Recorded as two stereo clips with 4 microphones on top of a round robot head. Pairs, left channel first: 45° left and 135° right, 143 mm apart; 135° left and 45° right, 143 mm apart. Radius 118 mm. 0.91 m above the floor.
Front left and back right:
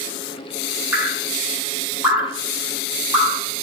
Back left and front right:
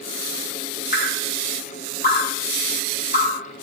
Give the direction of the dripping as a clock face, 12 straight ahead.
7 o'clock.